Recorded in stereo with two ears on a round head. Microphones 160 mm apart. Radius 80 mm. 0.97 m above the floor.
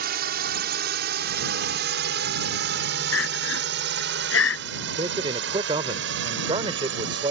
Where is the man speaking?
30° right (ahead or behind).